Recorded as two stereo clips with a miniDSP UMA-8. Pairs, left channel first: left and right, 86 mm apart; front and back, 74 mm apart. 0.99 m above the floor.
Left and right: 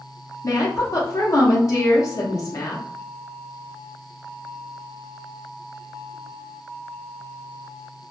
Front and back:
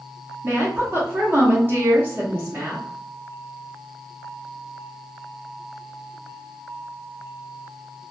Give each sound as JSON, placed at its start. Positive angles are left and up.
{"t": 0.4, "sound": "a woman speaking", "azimuth_deg": 130, "distance_m": 0.6}